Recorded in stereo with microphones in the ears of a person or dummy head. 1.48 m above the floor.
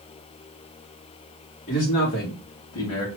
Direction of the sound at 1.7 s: 45° left (ahead or behind).